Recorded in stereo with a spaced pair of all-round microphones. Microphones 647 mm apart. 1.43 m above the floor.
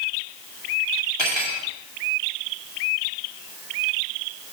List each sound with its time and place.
1.2 s cutlery clinking: 40° left (ahead or behind), 2 m